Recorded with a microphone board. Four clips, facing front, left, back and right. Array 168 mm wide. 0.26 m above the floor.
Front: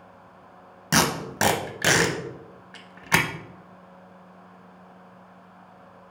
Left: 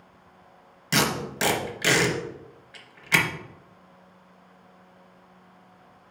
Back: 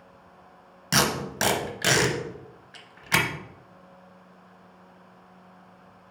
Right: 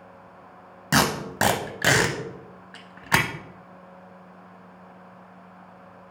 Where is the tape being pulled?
65° right, 0.9 m.